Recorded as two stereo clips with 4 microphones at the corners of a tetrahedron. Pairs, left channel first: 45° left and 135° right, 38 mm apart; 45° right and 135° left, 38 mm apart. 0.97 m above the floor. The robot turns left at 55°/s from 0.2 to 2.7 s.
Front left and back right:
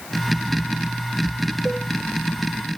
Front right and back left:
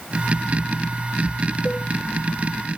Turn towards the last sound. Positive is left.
turn(degrees=-145)